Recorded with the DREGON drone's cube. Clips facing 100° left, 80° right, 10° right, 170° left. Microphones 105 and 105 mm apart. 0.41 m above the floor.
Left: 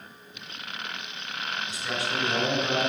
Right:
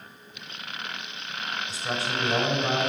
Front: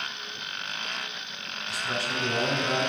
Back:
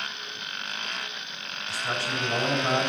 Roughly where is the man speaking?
Behind right.